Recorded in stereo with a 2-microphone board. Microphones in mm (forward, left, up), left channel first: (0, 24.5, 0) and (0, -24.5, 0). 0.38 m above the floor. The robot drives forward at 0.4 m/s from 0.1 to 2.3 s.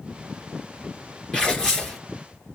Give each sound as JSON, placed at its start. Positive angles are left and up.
{"t": 1.3, "sound": "tearing paper", "side_deg": 15, "distance_m": 2.5}